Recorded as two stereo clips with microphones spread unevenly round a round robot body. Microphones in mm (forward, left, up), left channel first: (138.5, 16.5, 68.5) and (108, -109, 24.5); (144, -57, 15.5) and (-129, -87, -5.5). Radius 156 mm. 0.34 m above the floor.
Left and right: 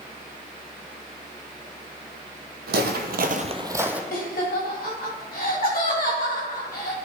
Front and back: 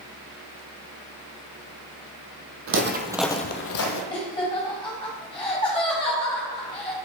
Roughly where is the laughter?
Left.